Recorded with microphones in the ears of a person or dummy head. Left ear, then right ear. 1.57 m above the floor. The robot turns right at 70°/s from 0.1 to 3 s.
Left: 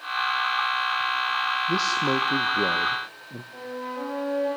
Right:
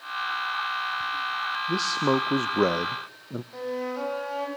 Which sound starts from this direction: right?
A flute, at 3.5 s.